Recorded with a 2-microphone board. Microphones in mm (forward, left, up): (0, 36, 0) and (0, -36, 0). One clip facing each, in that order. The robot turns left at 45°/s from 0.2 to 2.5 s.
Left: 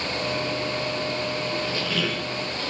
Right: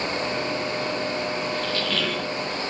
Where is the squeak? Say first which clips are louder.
Right 1 dB; 30° left, 0.6 m; by 2.3 s 5° right, 0.6 m.